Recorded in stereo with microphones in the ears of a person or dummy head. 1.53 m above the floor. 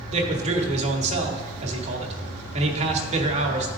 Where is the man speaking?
35° right (ahead or behind), 1.3 m.